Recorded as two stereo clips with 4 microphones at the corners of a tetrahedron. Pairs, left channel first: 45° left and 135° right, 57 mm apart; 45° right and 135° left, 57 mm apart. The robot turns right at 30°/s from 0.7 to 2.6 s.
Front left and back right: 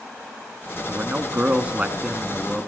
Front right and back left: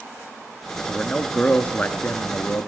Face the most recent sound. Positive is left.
turn(degrees=-60)